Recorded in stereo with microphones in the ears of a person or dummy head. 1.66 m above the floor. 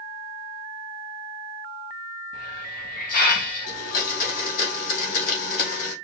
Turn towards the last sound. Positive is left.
turn(degrees=45)  # may be behind; listen again after turning